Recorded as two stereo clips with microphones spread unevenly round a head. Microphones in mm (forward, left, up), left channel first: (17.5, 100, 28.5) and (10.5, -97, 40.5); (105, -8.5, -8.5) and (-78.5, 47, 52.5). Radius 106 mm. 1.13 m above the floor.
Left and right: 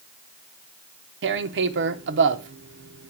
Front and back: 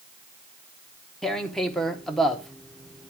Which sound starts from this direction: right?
Tearing paper, at 1.2 s.